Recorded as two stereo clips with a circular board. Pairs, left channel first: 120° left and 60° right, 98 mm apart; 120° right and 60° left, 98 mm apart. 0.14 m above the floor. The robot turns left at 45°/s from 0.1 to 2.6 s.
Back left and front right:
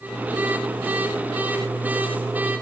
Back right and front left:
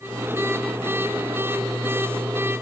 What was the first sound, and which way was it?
Only background noise.